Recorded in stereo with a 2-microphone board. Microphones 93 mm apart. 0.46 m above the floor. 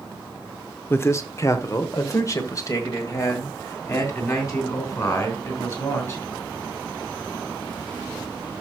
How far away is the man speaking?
About 0.9 m.